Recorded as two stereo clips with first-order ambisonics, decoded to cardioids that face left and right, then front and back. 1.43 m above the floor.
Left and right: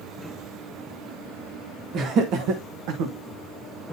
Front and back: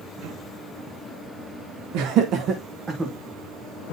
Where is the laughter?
150° right, 0.9 m; by 3.1 s 100° right, 1.2 m.